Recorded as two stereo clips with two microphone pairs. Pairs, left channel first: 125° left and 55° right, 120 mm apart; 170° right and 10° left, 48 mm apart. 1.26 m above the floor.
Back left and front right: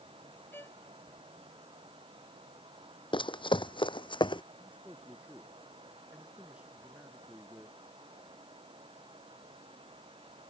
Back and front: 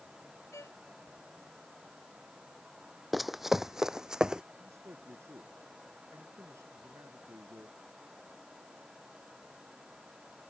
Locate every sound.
0.5 s a violin: 165° right
3.1 s running footsteps: 95° left; by 4.4 s 80° left
4.6 s a man speaking: 20° left